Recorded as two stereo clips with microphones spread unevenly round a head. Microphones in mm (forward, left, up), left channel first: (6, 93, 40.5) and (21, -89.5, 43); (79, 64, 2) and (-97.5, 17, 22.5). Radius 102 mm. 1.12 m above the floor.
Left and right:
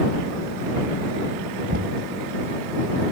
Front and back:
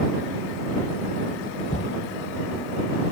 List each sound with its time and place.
1.7 s knocking: 45° right